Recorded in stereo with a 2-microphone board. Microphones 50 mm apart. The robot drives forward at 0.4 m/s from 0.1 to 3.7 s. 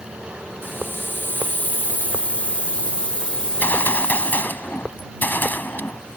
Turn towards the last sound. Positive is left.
turn(degrees=40)  # may be behind; listen again after turning